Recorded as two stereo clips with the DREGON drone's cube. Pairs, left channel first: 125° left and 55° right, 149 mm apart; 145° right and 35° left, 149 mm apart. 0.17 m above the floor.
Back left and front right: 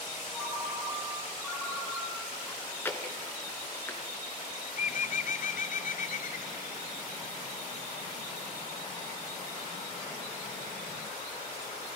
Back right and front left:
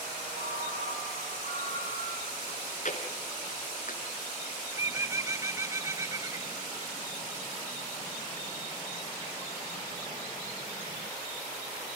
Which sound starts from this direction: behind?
Chewing, at 2.5 s.